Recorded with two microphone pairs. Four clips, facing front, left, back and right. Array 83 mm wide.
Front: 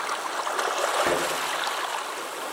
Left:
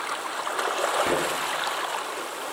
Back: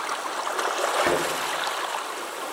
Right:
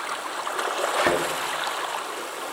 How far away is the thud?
About 4 m.